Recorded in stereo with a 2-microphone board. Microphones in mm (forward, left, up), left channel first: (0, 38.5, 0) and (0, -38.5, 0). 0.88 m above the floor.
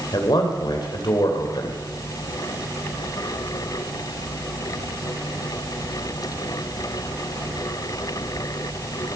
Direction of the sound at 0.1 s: 65° left (ahead or behind).